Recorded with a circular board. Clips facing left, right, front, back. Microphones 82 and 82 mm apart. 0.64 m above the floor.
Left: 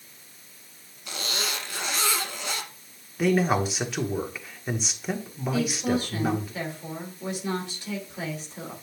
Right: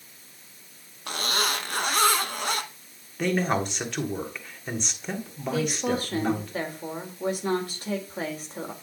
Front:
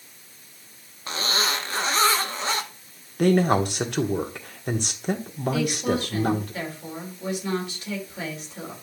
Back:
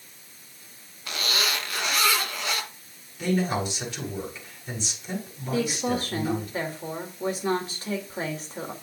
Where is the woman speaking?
130° right, 2.5 m.